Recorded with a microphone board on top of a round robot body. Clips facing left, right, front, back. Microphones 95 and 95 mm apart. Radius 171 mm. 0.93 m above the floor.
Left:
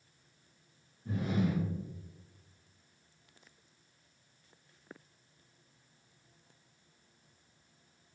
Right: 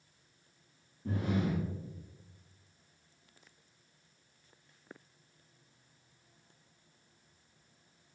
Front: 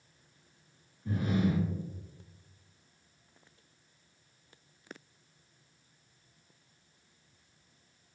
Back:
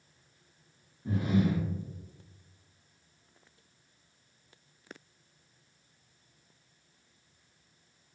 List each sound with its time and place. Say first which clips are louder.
1.1 s breathing: even, back 2 dB; 115° right, 0.9 m